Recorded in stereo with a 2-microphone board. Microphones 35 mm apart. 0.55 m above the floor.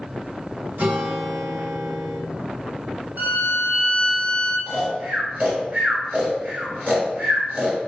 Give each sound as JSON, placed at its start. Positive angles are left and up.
{"t": 0.8, "sound": "a guitar", "side_deg": -60, "distance_m": 1.3}
{"t": 3.2, "sound": "a violin", "side_deg": -70, "distance_m": 1.1}
{"t": 4.7, "sound": "snoring", "side_deg": -55, "distance_m": 1.1}